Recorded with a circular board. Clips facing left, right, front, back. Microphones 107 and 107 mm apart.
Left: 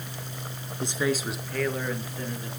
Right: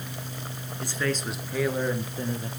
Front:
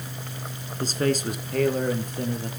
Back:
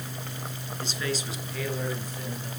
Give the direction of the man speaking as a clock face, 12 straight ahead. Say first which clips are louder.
Left 2 dB, front 8 dB; 11 o'clock.